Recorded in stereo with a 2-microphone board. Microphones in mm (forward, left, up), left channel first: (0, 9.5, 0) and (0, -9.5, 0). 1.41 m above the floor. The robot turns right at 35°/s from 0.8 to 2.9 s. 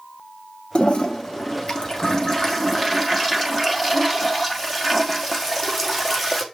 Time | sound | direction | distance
0.8 | a toilet flushing | 95° left | 1.4 m